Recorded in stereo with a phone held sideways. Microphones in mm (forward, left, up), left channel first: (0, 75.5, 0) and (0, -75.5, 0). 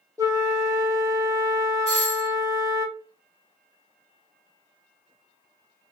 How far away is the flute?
About 0.7 m.